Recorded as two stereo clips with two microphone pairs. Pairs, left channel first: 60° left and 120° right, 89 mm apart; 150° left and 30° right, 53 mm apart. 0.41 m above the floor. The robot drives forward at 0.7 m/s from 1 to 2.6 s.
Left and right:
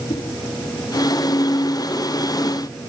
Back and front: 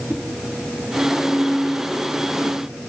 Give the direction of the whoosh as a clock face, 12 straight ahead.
9 o'clock.